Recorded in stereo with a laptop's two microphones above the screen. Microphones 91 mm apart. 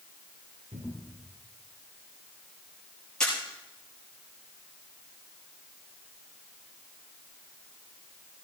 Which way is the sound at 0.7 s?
75° right (ahead or behind).